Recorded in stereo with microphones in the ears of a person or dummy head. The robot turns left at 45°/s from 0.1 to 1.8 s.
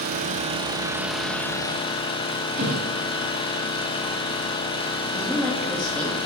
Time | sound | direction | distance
0.0 | an engine running | 130° right | 1.1 m
2.6 | a thud | 55° right (ahead or behind) | 3 m
5.1 | a woman speaking | 5° left (ahead or behind) | 3 m